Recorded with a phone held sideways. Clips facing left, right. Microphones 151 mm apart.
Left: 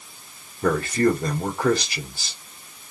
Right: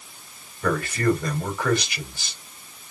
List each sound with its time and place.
0.6 s a man speaking: 35° left (ahead or behind), 1.8 m